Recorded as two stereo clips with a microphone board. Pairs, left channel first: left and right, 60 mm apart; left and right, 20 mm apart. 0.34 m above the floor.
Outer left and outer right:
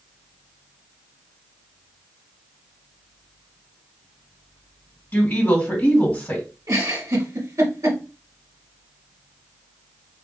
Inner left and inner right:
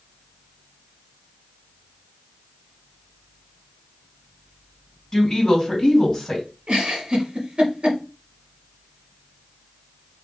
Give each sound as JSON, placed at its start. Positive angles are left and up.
{"t": 5.1, "sound": "a woman speaking", "side_deg": 30, "distance_m": 2.0}
{"t": 6.7, "sound": "a giggle", "side_deg": -65, "distance_m": 1.2}